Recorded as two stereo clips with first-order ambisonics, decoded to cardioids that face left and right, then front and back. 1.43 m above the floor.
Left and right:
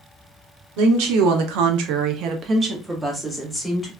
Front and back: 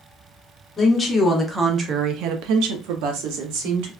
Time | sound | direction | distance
0.8 | a woman speaking | 75° right | 0.8 m